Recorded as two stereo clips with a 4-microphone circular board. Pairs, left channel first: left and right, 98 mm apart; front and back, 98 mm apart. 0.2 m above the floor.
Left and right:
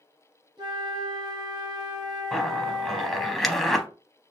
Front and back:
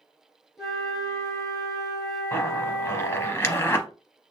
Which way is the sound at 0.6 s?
90° right.